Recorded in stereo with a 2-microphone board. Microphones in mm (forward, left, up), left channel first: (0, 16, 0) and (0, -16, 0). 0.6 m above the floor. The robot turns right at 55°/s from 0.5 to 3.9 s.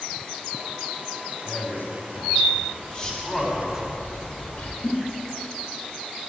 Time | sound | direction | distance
1.4 | a man speaking | 60° left (ahead or behind) | 4.5 m
2.8 | a bird | straight ahead | 1.9 m
4.8 | a giggle | 70° left (ahead or behind) | 6 m